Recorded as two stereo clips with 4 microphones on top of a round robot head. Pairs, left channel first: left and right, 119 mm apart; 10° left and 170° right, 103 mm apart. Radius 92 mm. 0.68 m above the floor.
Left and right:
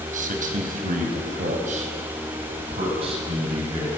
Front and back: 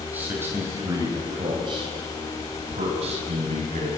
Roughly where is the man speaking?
Right.